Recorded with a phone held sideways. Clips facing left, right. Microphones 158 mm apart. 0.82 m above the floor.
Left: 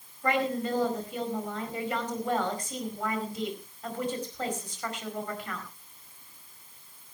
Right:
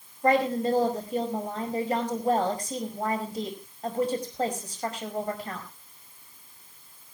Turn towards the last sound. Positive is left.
turn(degrees=-40)  # may be behind; listen again after turning